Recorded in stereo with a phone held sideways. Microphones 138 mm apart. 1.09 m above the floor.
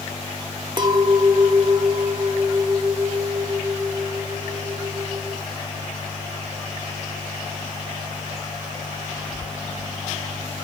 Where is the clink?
35° right (ahead or behind), 0.7 m.